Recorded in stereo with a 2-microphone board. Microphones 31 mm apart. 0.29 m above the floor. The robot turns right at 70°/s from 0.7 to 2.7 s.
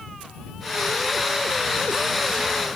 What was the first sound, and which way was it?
Only background noise.